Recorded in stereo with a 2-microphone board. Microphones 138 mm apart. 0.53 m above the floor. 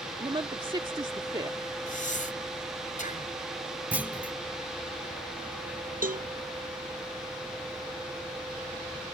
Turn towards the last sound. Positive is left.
turn(degrees=-80)